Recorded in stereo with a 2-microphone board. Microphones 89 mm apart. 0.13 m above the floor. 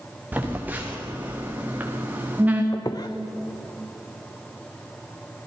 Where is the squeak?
45° left (ahead or behind), 1.6 m.